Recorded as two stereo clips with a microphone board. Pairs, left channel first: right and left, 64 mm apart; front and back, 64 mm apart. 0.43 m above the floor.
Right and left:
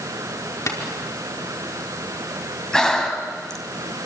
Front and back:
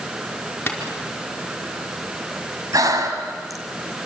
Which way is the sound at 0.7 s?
60° right.